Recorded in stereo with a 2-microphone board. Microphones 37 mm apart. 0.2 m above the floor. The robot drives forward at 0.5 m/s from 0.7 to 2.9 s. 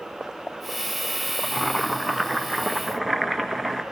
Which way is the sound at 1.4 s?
5° left (ahead or behind).